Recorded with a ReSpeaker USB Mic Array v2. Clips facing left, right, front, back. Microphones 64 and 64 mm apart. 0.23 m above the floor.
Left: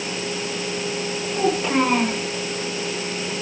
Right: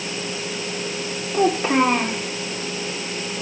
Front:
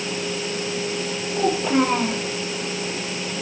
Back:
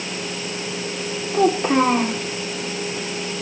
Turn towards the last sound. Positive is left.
turn(degrees=-160)